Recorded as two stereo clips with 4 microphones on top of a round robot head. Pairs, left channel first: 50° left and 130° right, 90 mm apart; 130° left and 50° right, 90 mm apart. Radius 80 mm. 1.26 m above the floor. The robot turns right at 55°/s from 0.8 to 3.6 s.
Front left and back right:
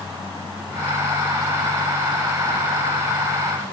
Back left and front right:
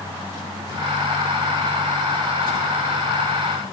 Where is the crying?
No crying in this recording.